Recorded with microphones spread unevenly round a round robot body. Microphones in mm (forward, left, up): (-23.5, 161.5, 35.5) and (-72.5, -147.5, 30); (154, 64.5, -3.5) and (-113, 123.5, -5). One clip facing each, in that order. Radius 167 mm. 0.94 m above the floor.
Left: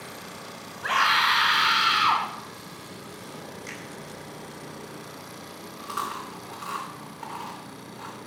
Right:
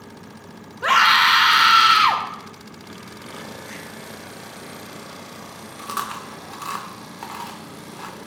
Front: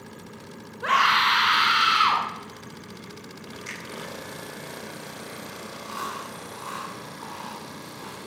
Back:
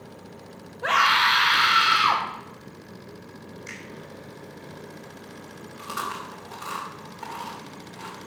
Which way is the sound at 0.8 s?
90° right.